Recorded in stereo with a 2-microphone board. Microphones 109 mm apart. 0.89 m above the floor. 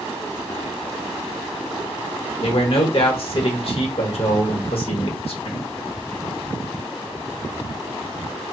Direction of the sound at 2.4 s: 60° left (ahead or behind).